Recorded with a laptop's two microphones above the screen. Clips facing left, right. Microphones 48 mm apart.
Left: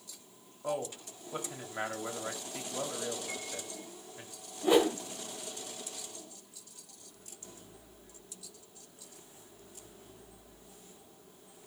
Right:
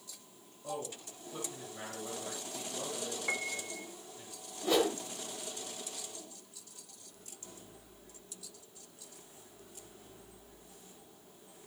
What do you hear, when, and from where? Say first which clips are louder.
0.6 s a man speaking: left 5 dB; 75° left (ahead or behind), 2.5 m
3.3 s a piano: right 5 dB; 60° right (ahead or behind), 0.7 m
4.6 s a whoosh: left 4 dB; 15° left (ahead or behind), 1.7 m